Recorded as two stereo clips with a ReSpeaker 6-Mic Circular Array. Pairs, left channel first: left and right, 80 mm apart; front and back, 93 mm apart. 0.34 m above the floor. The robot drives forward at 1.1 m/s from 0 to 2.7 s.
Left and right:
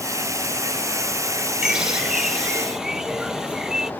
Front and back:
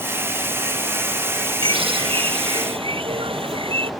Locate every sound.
1.6 s a bird: 170° right; by 3.9 s 175° right